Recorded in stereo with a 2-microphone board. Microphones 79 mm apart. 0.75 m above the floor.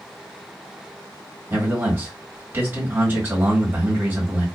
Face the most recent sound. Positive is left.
turn(degrees=-30)  # may be behind; listen again after turning